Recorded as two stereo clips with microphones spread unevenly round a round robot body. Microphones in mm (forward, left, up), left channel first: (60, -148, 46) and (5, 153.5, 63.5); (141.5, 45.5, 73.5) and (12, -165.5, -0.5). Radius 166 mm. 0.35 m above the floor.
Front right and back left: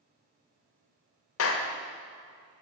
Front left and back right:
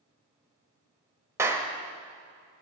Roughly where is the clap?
Ahead right.